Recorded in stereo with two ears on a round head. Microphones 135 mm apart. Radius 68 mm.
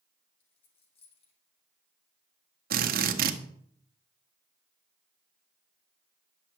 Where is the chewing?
I don't hear chewing.